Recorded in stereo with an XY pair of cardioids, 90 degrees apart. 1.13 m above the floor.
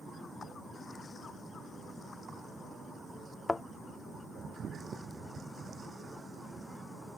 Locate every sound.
3.5 s a thud: 25° left